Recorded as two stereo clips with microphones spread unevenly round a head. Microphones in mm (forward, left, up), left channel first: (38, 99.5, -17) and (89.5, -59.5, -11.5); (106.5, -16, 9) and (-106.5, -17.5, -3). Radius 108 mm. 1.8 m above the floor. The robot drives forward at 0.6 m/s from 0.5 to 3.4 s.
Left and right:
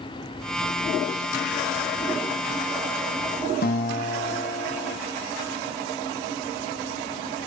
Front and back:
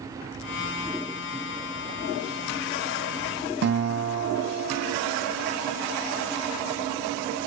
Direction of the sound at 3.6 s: 145° left.